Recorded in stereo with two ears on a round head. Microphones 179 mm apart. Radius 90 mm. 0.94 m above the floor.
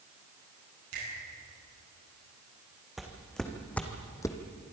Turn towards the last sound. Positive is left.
turn(degrees=20)  # may be behind; listen again after turning